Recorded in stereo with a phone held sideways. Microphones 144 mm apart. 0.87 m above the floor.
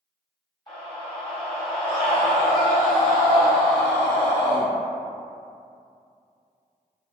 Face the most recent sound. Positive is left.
turn(degrees=35)  # may be behind; listen again after turning